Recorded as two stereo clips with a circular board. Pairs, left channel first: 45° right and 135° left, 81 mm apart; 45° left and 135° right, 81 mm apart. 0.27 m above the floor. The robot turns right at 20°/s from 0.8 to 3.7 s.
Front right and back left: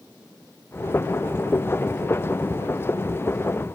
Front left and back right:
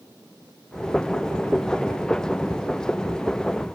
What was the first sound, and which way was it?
Only background noise.